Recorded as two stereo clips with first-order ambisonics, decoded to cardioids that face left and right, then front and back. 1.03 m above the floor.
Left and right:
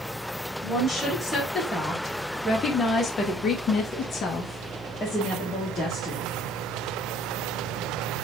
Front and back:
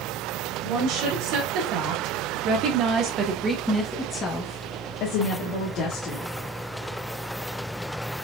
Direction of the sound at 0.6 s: Straight behind.